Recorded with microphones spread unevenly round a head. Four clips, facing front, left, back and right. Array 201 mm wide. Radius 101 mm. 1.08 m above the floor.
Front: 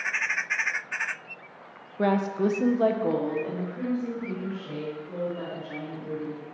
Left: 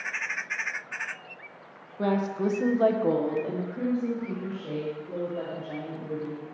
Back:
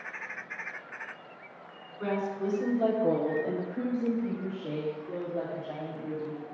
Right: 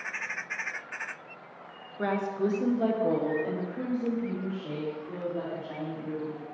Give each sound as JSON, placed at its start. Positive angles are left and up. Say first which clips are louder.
{"t": 2.0, "sound": "a woman speaking", "louder": "left 2 dB, front 7 dB", "azimuth_deg": 20, "distance_m": 0.8}